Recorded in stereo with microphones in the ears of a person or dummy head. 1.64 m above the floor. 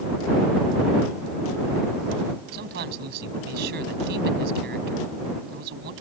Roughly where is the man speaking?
Right.